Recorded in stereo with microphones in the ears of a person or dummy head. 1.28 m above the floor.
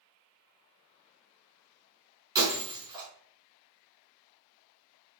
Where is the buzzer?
I don't hear a buzzer.